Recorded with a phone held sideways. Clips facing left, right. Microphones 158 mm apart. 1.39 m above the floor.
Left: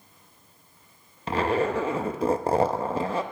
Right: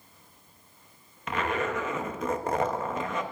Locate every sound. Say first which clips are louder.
1.3 s a zipper: left 5 dB; 30° left (ahead or behind), 0.7 m